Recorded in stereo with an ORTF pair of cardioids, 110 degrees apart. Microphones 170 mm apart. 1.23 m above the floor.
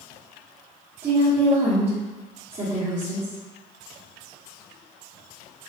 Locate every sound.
1.0 s a woman speaking: 35° right, 1.4 m